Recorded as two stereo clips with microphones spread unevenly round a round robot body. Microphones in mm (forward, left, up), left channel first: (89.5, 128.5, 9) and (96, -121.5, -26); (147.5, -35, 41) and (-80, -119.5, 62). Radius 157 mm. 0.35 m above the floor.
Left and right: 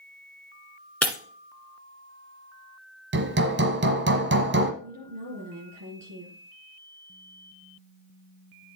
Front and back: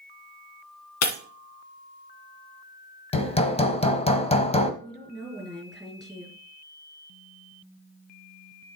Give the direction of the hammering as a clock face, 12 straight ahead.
2 o'clock.